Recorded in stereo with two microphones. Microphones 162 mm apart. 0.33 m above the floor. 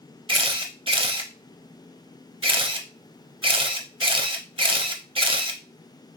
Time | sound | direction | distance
0.3 | a camera shutter | 30° right (ahead or behind) | 0.5 m